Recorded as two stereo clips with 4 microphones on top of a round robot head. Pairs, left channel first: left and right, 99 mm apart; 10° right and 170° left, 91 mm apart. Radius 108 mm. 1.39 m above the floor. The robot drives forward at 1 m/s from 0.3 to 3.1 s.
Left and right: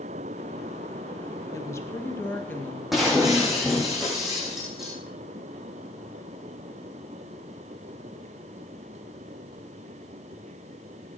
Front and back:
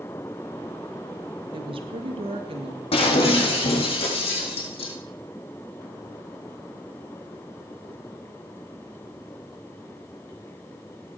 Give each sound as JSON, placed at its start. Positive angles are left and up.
{"t": 1.5, "sound": "a woman speaking", "azimuth_deg": 150, "distance_m": 1.6}
{"t": 2.9, "sound": "breaking glass", "azimuth_deg": 0, "distance_m": 4.0}